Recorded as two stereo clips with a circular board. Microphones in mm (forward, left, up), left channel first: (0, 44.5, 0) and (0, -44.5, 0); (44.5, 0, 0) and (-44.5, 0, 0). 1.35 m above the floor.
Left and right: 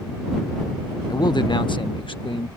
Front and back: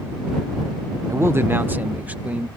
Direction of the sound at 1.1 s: 125° left.